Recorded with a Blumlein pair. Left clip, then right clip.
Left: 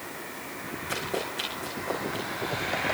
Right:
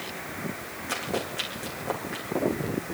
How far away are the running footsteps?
About 5.5 m.